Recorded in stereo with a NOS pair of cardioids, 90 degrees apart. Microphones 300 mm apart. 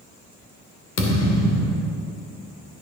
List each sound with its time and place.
1.0 s a thud: 55° left, 2.5 m